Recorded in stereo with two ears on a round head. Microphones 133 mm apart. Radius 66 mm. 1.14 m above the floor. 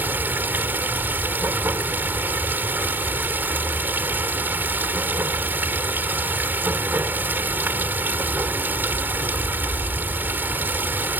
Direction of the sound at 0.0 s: 15° right (ahead or behind).